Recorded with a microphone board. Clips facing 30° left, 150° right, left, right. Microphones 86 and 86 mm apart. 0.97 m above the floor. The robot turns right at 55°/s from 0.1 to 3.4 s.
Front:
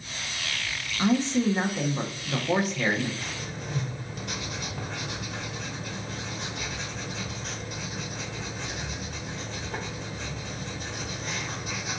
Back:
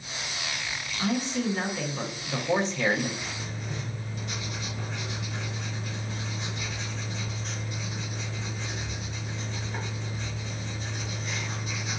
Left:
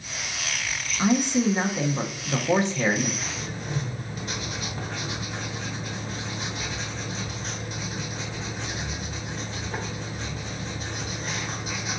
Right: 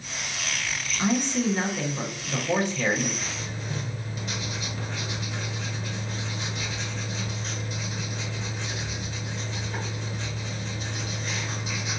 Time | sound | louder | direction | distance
1.0 | a man speaking | front 5 dB, left 3 dB | 20° left | 0.5 m
3.2 | writing | front 1 dB, left 1 dB | 30° left | 2.0 m